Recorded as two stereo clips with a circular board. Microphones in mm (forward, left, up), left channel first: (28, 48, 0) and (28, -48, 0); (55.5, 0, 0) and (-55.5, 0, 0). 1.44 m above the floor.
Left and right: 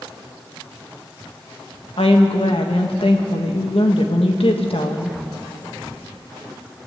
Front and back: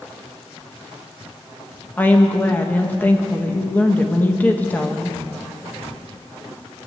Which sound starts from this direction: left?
A woman speaking, at 2.0 s.